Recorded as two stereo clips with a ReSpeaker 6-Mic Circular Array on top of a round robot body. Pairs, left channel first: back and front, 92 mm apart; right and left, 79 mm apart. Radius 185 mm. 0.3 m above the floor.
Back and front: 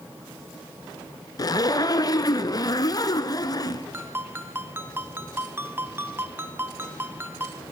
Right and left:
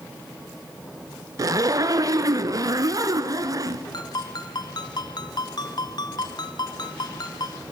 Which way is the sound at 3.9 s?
65° right.